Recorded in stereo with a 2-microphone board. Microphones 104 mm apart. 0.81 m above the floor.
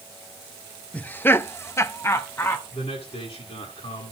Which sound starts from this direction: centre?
Laughter, at 0.9 s.